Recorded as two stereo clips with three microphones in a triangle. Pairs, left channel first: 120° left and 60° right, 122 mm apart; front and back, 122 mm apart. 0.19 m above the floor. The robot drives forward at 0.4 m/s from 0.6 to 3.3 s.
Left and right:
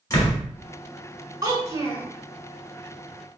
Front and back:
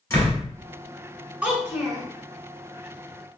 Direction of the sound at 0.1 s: 60° left.